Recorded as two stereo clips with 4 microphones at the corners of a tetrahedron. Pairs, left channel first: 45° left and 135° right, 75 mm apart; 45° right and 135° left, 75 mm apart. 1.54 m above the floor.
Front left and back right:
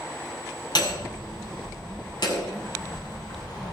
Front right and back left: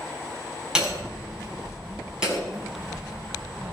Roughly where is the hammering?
Ahead left.